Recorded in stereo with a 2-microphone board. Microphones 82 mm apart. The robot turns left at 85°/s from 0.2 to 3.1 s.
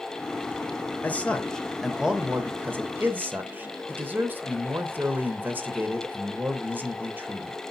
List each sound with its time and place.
1.0 s a man speaking: 20° left (ahead or behind), 0.8 m; by 7.6 s 20° right (ahead or behind), 0.8 m